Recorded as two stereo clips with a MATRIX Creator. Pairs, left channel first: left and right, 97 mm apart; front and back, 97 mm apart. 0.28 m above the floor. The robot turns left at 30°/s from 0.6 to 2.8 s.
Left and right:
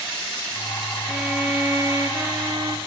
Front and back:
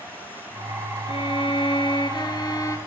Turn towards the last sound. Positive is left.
turn(degrees=-55)